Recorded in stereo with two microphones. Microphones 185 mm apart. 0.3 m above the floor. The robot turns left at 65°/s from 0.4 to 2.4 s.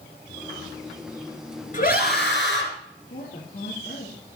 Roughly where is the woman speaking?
Left.